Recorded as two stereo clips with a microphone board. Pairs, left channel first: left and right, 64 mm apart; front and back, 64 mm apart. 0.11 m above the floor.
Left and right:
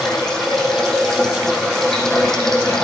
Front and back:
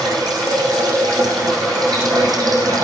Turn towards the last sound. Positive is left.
turn(degrees=170)